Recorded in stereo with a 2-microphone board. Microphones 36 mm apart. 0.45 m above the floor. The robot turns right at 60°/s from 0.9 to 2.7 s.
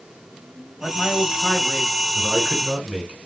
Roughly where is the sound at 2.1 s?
Behind.